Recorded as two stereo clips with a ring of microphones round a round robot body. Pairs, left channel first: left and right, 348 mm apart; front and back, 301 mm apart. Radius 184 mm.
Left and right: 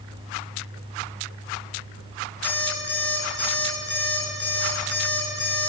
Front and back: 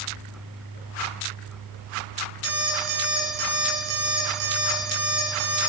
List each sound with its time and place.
2.4 s an alarm clock: 175° left, 6 m